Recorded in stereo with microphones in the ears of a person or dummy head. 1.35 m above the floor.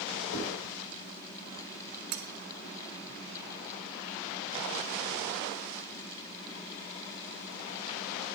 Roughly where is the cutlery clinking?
Right.